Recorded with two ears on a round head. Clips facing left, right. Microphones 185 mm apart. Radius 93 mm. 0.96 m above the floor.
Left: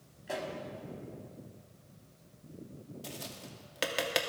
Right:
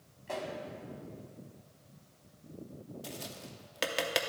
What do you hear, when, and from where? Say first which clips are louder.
0.3 s a pop: even; 10° left (ahead or behind), 1.1 m
3.0 s tapping: right 1 dB; centre (ahead or behind), 0.5 m